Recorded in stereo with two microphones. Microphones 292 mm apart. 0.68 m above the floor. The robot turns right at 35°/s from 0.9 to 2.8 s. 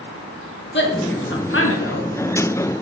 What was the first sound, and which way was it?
A woman speaking, 40° left (ahead or behind).